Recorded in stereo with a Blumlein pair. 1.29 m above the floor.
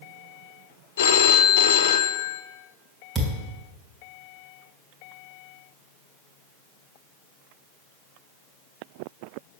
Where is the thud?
10° right, 3 m.